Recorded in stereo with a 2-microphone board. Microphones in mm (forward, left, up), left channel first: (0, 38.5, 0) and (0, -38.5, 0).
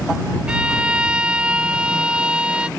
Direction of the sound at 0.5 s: 15° right (ahead or behind).